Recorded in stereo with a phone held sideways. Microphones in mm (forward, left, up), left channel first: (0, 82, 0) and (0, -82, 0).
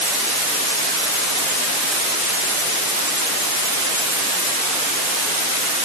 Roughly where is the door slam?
I don't hear a door slam.